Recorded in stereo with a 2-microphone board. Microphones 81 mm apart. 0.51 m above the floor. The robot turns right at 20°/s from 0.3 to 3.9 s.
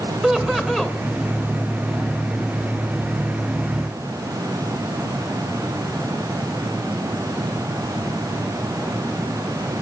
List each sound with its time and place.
0.2 s laughter: 15° right (ahead or behind), 1.9 m; by 1.0 s 5° right (ahead or behind), 1.9 m